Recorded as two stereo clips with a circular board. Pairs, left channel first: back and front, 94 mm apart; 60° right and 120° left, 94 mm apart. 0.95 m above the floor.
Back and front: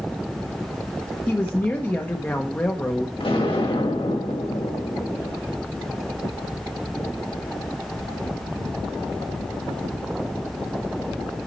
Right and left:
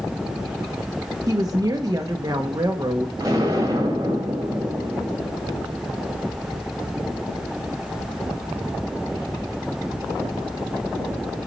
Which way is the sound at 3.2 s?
175° left.